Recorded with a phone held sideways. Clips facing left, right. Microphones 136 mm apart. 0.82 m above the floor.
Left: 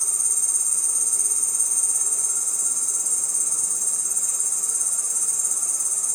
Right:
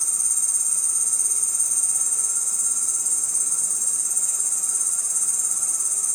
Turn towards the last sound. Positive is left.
turn(degrees=55)  # may be behind; listen again after turning